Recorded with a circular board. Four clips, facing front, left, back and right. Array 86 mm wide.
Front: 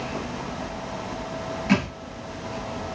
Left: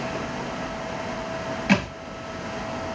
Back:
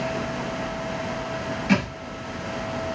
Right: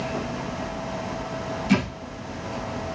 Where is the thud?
90° left, 1.5 m.